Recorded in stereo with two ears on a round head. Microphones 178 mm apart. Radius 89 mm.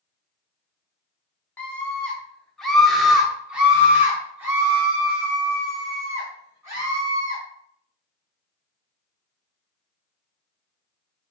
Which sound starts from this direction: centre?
A scream, at 1.6 s.